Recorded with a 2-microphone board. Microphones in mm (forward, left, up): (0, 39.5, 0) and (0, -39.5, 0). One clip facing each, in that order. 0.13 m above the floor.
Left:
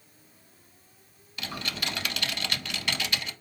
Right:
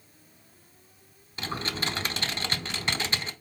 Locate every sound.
1.4 s typing on a keyboard: 30° right (ahead or behind), 0.7 m